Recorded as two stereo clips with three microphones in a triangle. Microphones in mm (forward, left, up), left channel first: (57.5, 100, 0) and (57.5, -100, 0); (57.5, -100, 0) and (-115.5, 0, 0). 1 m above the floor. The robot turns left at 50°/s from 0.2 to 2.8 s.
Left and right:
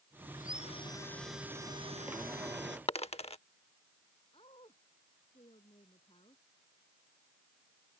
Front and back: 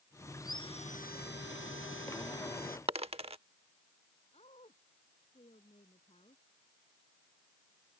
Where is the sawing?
50° left; by 2.8 s 75° right.